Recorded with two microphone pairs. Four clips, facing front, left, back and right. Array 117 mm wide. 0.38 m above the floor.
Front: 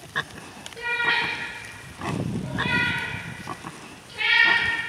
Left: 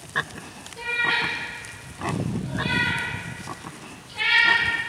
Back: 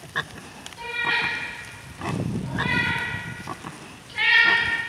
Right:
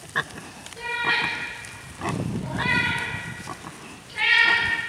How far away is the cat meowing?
About 1.0 m.